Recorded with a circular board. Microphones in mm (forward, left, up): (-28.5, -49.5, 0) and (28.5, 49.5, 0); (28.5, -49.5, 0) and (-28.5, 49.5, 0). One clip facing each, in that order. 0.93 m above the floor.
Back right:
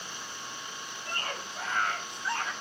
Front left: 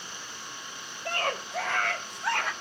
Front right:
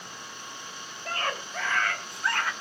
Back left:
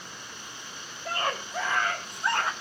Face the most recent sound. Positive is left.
turn(degrees=55)